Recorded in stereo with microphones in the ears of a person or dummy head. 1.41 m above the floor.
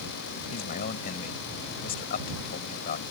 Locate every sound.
0.5 s a man speaking: 50° left (ahead or behind)